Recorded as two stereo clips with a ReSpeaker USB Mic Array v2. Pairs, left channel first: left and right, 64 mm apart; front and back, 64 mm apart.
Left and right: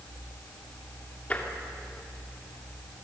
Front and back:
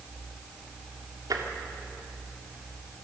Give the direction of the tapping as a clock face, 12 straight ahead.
7 o'clock.